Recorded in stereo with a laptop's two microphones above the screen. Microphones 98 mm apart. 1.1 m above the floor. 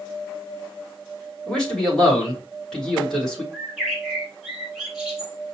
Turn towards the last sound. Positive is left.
turn(degrees=-10)  # may be behind; listen again after turning